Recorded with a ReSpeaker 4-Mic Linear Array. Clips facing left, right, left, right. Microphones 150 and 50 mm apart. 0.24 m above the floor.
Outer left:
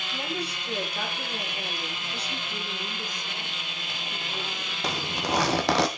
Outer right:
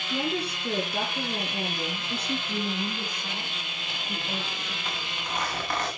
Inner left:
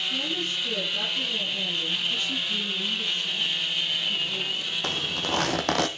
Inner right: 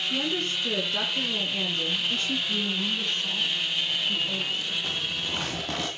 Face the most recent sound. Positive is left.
turn(degrees=85)